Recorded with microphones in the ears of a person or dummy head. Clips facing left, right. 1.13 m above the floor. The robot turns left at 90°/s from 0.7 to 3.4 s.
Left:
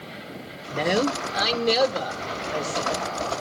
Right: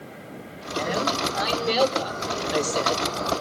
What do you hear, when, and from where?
0.7 s a man speaking: 120° left, 2.5 m; by 3.0 s 95° right, 2.5 m